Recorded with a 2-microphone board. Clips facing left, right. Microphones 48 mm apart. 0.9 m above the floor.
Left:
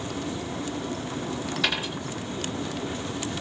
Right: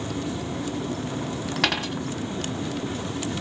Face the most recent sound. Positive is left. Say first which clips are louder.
# right 3 dB
turn(degrees=-70)  # may be behind; listen again after turning